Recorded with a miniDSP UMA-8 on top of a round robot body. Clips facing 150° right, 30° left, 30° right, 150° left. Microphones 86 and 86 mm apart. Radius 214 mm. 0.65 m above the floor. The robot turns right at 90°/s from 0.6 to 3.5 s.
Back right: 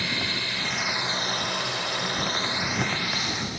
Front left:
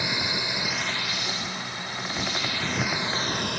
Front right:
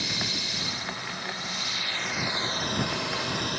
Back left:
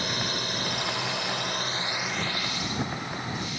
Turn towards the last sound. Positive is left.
turn(degrees=5)